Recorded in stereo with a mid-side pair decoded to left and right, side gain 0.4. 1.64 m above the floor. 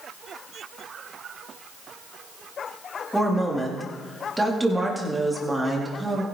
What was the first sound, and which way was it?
A woman speaking, 10° right.